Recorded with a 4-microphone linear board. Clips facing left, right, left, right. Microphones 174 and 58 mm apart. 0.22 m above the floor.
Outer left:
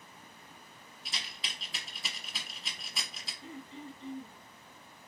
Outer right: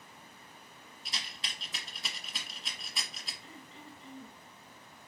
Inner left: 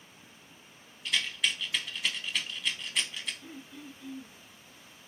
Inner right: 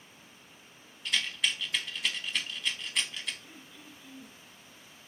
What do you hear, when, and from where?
1.1 s a rattle: centre (ahead or behind), 0.7 m
3.4 s throat clearing: 30° left (ahead or behind), 1.3 m